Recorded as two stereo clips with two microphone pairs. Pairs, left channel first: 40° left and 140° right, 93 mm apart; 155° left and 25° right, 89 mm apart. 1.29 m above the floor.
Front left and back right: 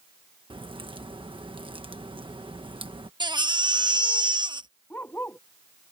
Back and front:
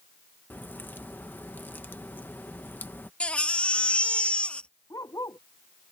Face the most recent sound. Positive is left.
turn(degrees=110)